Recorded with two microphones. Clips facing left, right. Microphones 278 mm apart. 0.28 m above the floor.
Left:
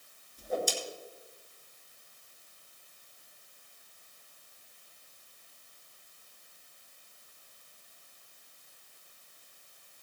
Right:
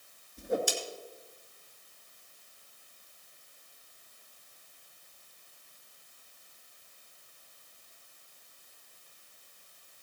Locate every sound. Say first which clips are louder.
0.4 s a whoosh: right 2 dB; 75° right (ahead or behind), 1.8 m